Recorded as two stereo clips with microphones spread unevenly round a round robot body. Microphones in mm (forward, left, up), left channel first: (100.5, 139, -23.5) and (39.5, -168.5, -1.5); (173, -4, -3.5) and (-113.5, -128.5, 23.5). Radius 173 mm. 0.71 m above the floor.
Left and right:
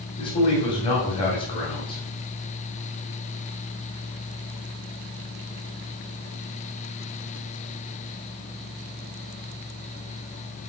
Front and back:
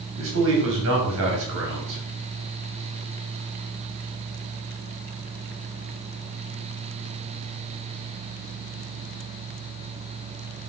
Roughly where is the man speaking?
Behind left.